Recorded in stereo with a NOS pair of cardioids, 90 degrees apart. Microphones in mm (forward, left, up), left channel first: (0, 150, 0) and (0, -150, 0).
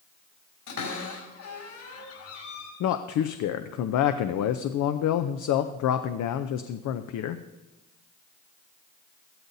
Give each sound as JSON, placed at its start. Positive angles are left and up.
{"t": 0.7, "sound": "a cupboard door", "azimuth_deg": 70, "distance_m": 5.5}
{"t": 2.8, "sound": "a man speaking", "azimuth_deg": 65, "distance_m": 0.6}